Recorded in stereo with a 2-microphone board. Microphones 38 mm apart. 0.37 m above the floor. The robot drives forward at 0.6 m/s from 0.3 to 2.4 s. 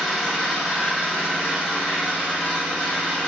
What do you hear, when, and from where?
0.0 s an engine running: centre (ahead or behind), 1.3 m